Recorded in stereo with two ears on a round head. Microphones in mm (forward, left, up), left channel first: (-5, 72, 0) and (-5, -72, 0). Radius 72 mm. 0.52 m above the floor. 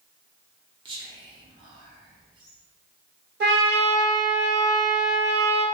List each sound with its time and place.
0.8 s whispering: 30° right (ahead or behind), 0.8 m
3.4 s a trumpet: 70° right (ahead or behind), 0.8 m